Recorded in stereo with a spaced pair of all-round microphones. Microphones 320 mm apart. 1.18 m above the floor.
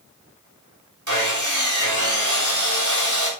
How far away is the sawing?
About 4 m.